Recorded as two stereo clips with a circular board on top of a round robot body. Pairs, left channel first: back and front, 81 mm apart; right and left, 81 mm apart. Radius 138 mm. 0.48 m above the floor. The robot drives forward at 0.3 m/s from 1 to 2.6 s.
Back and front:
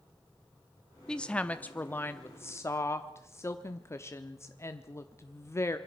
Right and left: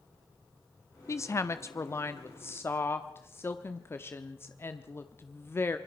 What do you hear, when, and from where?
1.1 s a woman speaking: 105° right, 1.0 m; by 5.8 s 135° right, 1.1 m